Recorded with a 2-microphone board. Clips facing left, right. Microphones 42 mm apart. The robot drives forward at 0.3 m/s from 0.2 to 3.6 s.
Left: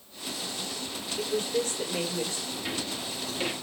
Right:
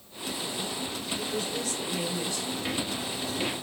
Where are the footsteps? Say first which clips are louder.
Right 2 dB; 15° right (ahead or behind), 3.5 m; by 3.5 s 5° left (ahead or behind), 3 m.